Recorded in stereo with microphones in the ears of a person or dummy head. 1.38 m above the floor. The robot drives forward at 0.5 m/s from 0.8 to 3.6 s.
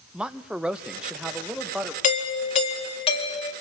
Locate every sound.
0.1 s a man speaking: centre (ahead or behind), 0.9 m
2.0 s a doorbell: 40° left (ahead or behind), 1.9 m; by 3.5 s 30° left (ahead or behind), 2.5 m